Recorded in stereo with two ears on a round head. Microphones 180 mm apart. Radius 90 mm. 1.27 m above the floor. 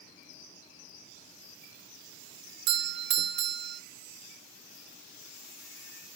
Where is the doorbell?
55° right (ahead or behind), 0.9 m.